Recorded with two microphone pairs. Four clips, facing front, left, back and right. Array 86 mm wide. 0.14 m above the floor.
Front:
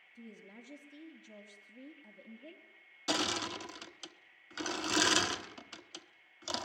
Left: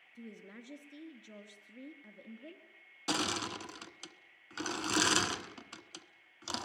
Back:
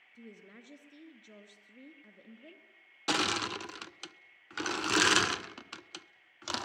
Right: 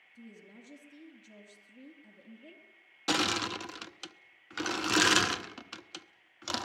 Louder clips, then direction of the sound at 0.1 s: Left 2 dB, even; 115° left.